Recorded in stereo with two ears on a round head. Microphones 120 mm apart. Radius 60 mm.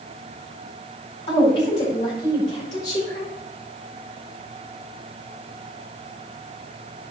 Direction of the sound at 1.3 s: 40° left (ahead or behind).